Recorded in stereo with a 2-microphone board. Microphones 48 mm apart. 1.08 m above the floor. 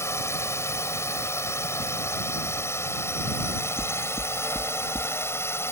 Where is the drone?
70° left (ahead or behind); by 5.7 s 60° left (ahead or behind).